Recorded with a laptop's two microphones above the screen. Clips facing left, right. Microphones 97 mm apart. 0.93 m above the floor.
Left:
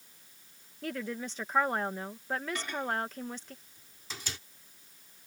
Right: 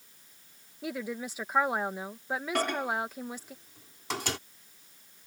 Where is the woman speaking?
10° right (ahead or behind).